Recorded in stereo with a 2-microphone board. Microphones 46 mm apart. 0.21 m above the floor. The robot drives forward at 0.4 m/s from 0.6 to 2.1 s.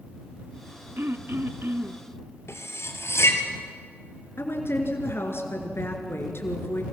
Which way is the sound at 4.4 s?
65° left (ahead or behind).